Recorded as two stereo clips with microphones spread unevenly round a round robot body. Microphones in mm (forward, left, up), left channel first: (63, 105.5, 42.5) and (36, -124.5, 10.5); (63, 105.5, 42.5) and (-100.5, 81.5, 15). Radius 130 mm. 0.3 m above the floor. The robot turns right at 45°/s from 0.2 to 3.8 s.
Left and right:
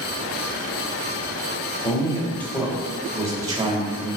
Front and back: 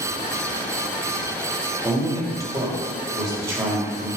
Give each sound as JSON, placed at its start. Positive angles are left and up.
{"t": 1.8, "sound": "a man speaking", "azimuth_deg": 150, "distance_m": 1.5}